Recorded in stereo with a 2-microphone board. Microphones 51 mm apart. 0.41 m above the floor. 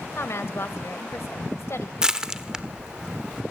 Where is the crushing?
15° right (ahead or behind), 1.1 m.